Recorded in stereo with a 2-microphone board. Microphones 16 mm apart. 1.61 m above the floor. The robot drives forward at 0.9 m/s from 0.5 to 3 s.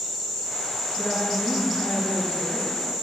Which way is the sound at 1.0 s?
75° left (ahead or behind).